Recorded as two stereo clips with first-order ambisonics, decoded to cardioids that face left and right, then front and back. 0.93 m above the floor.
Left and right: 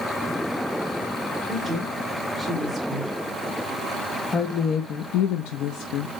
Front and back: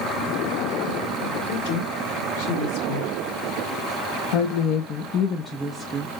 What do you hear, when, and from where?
1.5 s a woman speaking: 10° right, 2.5 m; by 6.2 s 110° left, 0.9 m